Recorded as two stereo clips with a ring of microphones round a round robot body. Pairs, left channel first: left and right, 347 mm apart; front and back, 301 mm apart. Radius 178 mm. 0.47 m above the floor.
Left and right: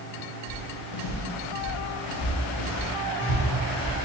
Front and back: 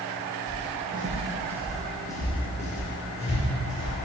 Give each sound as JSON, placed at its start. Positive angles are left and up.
{"t": 0.5, "sound": "footsteps", "azimuth_deg": 140, "distance_m": 1.1}